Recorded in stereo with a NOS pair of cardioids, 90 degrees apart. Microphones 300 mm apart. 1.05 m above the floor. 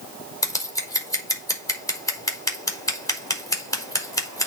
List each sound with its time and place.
0.4 s scissors: 10° left, 4 m